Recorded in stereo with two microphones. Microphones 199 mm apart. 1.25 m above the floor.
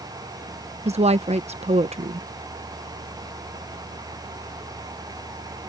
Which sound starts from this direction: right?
A woman speaking, at 0.8 s.